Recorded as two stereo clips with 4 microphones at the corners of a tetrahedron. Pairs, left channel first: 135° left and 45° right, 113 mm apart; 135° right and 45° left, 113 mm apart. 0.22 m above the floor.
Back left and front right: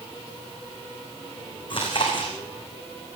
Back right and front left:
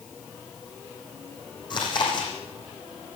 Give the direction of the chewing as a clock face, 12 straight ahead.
6 o'clock.